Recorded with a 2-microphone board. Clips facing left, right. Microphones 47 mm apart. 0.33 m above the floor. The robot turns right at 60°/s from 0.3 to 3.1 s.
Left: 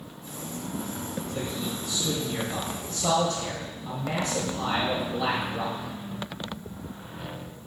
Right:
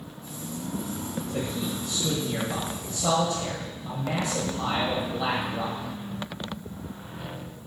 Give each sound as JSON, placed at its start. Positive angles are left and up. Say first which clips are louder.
{"t": 1.3, "sound": "a man speaking", "louder": "right 3 dB", "azimuth_deg": -110, "distance_m": 1.2}